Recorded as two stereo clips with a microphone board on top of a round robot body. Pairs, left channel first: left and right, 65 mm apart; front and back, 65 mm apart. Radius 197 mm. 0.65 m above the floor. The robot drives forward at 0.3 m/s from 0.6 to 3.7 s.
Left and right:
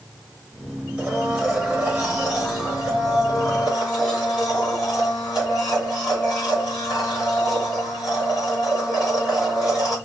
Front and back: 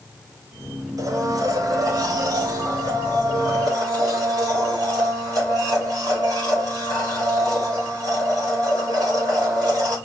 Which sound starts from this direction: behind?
A blender, at 1.0 s.